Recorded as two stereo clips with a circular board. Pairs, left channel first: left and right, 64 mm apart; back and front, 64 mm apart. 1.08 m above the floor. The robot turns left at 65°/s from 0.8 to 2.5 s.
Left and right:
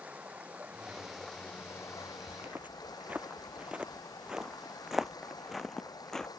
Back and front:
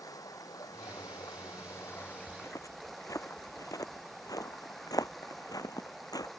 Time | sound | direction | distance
0.0 | running water | 160° right | ?
2.3 | footsteps | 135° right | ?